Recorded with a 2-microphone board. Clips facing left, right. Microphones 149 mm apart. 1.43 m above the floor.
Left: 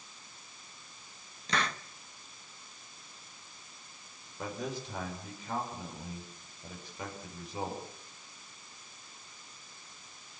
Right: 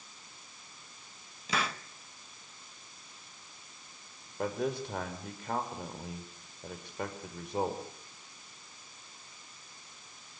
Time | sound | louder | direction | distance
1.5 | a hiss | even | 5° right (ahead or behind) | 1.1 m
4.4 | a man speaking | right 5 dB | 60° right (ahead or behind) | 4.5 m